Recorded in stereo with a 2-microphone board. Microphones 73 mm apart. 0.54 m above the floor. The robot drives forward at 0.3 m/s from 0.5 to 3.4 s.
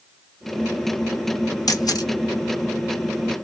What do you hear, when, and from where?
1.7 s a camera shutter: 65° left (ahead or behind), 0.7 m